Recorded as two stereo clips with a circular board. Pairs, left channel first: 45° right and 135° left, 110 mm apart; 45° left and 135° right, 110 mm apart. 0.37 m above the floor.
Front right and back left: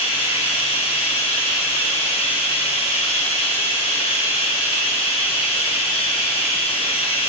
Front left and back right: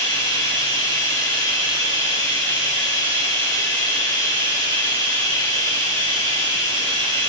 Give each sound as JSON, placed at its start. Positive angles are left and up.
{"t": 0.0, "sound": "running water", "azimuth_deg": -15, "distance_m": 2.5}